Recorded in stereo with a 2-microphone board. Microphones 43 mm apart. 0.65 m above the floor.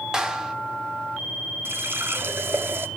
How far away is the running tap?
About 0.8 m.